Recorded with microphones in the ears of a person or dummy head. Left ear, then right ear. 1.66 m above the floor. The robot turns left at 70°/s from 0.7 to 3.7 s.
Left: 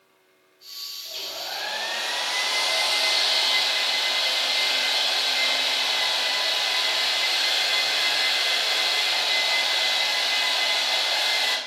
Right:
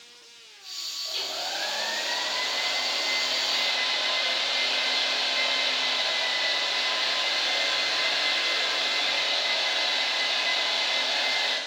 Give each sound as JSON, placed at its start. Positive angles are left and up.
{"t": 1.1, "sound": "a hair dryer", "azimuth_deg": -155, "distance_m": 6.0}